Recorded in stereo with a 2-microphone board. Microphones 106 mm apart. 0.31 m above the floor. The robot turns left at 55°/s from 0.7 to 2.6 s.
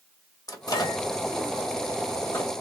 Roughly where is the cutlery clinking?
No cutlery clinking in this recording.